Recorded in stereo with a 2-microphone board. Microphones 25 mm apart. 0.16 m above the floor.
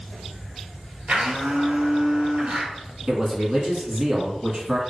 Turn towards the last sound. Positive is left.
turn(degrees=-35)  # may be behind; listen again after turning